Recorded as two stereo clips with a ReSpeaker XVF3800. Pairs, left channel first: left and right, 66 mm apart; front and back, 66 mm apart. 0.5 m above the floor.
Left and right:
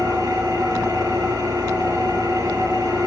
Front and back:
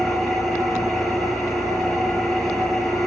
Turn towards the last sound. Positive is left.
turn(degrees=-85)